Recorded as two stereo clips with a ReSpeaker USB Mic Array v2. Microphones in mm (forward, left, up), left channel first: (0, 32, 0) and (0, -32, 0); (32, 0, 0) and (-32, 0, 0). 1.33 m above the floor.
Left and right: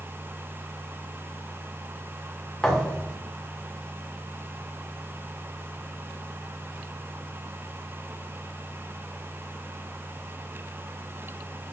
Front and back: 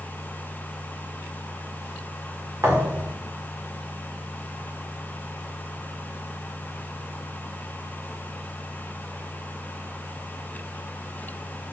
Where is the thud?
165° left, 1.3 m.